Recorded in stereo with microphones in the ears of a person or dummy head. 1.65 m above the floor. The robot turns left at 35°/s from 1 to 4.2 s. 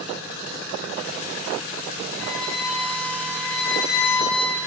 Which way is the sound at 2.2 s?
170° left.